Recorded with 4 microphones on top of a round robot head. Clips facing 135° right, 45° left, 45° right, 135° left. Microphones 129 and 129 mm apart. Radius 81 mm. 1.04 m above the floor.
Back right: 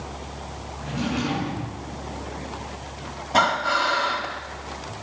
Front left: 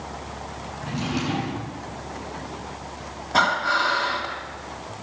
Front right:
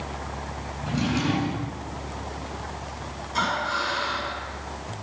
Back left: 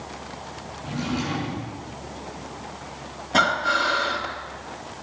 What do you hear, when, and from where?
0.8 s a drawer: 20° right, 7.5 m
3.3 s breathing: 150° left, 2.5 m